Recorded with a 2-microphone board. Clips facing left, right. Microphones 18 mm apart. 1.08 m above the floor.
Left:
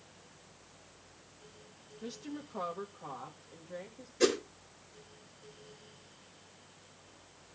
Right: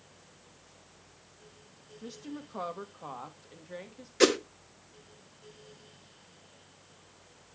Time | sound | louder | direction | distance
2.0 | a woman speaking | even | 15° left (ahead or behind) | 0.8 m
4.2 | a whoosh | right 5 dB | 70° right (ahead or behind) | 0.9 m